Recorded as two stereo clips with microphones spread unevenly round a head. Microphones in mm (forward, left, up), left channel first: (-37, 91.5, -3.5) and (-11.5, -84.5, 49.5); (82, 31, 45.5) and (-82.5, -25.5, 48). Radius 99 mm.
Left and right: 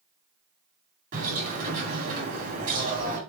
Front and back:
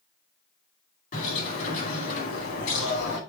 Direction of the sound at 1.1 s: 30° right.